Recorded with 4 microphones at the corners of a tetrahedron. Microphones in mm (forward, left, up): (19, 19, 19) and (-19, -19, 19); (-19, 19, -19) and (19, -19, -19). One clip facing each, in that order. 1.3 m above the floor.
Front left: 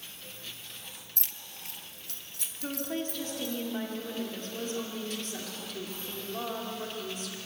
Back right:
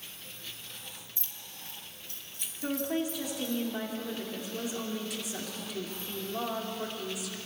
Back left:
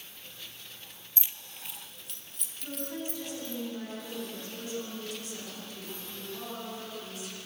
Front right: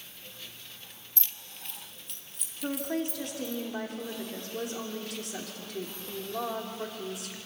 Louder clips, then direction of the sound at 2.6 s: Back right 3 dB, front right 6 dB; 55° right.